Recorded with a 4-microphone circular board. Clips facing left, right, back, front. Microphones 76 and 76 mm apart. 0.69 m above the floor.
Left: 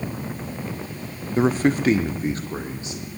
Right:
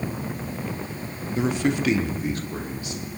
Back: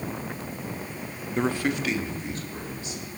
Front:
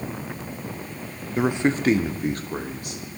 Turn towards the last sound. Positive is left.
turn(degrees=30)